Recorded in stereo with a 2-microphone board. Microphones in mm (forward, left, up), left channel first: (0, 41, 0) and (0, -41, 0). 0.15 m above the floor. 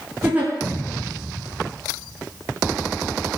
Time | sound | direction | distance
0.2 | a giggle | 25° right (ahead or behind) | 5 m